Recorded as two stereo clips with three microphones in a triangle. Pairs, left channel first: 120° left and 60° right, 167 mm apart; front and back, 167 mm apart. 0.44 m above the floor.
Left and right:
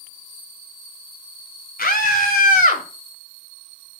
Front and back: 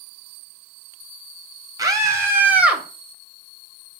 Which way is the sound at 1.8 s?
115° left.